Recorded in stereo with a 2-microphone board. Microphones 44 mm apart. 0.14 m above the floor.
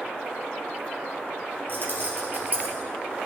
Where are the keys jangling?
50° right (ahead or behind), 2.5 m; by 2.7 s 35° right (ahead or behind), 2.5 m.